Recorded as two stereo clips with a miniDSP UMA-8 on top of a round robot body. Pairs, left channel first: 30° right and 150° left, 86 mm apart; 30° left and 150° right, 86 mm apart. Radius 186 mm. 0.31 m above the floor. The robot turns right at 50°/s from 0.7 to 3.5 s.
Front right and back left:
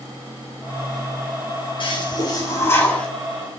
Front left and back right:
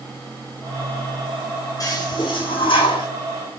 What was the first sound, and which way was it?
A toilet flushing, 15° right.